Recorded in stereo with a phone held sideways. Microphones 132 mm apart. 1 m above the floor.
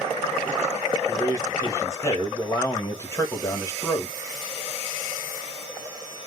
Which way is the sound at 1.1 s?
25° left (ahead or behind).